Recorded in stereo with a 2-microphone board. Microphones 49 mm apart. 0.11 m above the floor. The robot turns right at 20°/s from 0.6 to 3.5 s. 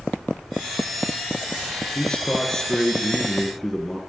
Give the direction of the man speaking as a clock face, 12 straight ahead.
7 o'clock.